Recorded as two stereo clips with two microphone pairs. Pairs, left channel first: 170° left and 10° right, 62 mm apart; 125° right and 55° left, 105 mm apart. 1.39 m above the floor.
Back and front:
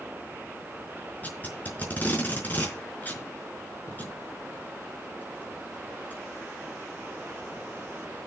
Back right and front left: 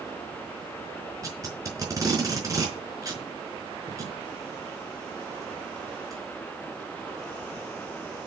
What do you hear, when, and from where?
1.2 s tape being pulled: 110° left, 4.5 m